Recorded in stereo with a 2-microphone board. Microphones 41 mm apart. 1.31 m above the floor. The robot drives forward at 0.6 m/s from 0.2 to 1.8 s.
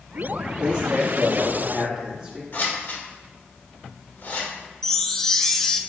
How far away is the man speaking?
About 3 m.